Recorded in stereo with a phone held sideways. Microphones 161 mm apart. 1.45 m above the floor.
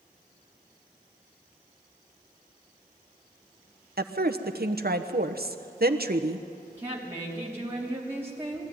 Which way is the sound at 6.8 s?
15° right (ahead or behind).